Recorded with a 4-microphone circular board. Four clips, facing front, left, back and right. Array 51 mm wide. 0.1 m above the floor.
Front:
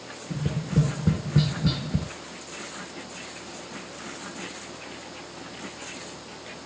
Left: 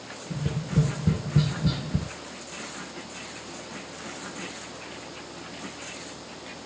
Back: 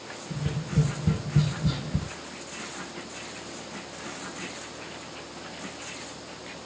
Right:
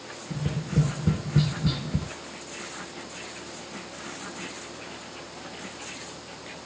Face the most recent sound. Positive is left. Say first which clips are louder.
# even, front 3 dB
turn(degrees=-20)